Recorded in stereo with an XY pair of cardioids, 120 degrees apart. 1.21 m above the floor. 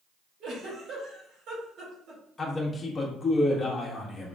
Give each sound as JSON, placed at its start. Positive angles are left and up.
{"t": 0.4, "sound": "a giggle", "azimuth_deg": -60, "distance_m": 2.5}
{"t": 2.4, "sound": "a man speaking", "azimuth_deg": 25, "distance_m": 1.5}